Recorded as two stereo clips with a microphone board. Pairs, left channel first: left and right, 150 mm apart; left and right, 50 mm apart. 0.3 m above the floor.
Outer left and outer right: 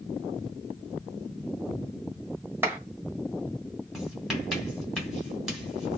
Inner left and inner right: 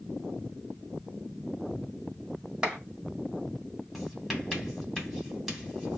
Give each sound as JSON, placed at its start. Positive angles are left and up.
{"t": 2.6, "sound": "a clap", "side_deg": -15, "distance_m": 1.3}
{"t": 3.9, "sound": "writing", "side_deg": -5, "distance_m": 1.5}